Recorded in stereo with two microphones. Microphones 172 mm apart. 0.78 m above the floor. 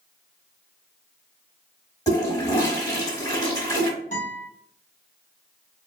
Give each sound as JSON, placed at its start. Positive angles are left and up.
{"t": 2.1, "sound": "a toilet flushing", "side_deg": 20, "distance_m": 1.1}
{"t": 4.1, "sound": "a guitar", "side_deg": 45, "distance_m": 1.4}